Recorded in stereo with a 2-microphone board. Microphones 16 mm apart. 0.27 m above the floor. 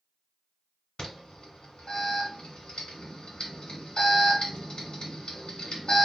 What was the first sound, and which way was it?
An alarm, 60° left (ahead or behind).